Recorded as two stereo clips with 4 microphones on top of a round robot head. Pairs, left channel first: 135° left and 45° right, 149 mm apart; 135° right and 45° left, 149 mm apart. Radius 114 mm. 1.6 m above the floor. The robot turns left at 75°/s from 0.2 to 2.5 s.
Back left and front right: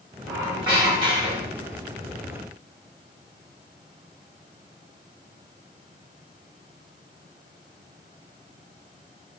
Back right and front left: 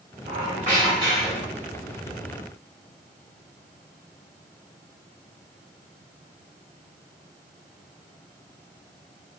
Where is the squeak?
60° left, 1.0 m; by 1.7 s 45° right, 1.0 m.